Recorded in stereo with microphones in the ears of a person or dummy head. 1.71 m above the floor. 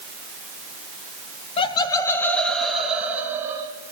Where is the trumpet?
I don't hear a trumpet.